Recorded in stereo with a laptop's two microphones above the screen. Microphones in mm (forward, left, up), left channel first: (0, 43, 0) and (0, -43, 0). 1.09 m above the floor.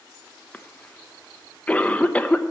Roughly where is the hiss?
No hiss in this recording.